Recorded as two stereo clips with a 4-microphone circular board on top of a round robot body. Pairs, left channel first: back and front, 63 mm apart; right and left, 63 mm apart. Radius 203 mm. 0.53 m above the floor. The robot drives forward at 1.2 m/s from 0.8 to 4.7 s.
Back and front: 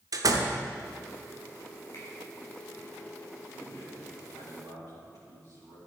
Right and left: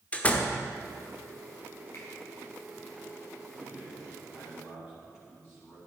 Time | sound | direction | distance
0.1 | a door slam | 20° right | 1.1 m
1.9 | a finger snap | 140° right | 4.5 m
3.5 | a man speaking | 160° left | 5 m